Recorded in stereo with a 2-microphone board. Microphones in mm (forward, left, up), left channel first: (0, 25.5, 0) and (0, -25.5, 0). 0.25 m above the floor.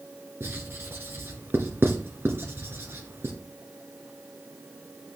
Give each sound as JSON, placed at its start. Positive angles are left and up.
{"t": 0.4, "sound": "writing", "side_deg": -50, "distance_m": 1.5}